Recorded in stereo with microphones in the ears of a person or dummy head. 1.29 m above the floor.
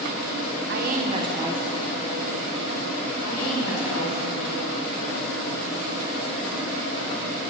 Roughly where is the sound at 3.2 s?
Left.